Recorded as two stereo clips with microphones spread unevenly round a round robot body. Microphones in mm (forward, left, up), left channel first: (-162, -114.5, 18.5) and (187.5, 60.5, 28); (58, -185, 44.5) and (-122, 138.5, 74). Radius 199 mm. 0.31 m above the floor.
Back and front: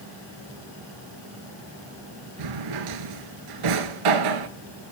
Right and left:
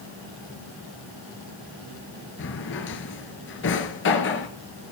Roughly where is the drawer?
Ahead.